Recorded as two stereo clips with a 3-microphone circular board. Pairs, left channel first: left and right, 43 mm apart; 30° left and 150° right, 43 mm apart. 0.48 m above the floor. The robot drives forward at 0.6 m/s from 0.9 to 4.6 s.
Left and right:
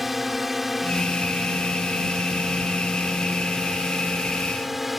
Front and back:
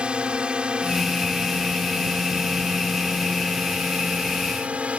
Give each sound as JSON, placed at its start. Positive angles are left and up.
{"t": 0.0, "sound": "a drone", "azimuth_deg": -170}